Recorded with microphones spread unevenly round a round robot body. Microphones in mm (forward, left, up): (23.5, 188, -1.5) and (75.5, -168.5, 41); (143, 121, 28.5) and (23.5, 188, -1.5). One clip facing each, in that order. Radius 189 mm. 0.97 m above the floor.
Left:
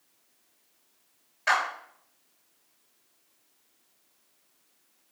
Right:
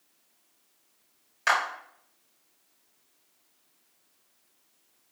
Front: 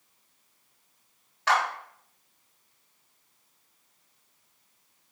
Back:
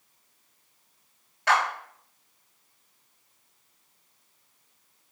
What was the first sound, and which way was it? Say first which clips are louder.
A clap: even, back 1 dB; 125° right.